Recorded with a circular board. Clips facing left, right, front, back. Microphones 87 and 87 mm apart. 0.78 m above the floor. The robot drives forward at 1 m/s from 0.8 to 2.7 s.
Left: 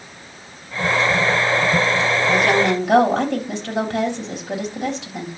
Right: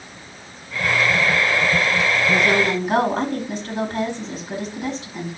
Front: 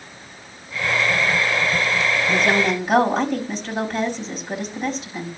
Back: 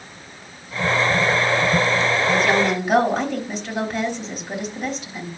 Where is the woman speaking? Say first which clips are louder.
Left 2 dB, even; 90° left, 4 m; by 5.3 s 95° left, 4 m.